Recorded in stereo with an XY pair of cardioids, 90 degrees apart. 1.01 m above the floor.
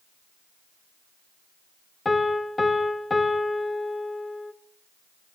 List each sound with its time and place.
2.0 s a piano: 20° left, 0.6 m